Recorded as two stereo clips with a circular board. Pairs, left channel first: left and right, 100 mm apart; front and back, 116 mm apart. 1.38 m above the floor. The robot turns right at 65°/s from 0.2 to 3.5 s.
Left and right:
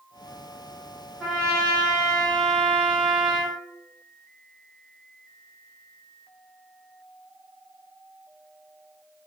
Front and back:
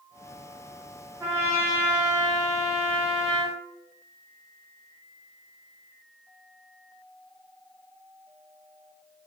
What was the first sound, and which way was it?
A trumpet, 165° right.